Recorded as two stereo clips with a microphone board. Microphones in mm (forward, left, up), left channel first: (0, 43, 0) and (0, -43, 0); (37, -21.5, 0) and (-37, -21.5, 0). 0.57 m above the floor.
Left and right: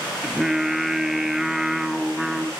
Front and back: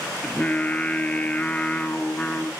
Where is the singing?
15° right, 1.1 m.